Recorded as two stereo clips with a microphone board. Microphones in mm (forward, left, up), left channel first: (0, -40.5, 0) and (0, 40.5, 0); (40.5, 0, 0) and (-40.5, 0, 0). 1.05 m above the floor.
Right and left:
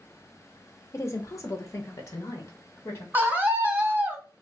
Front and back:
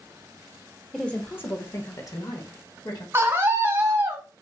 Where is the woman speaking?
80° right, 0.6 m; by 3.0 s 35° right, 1.6 m.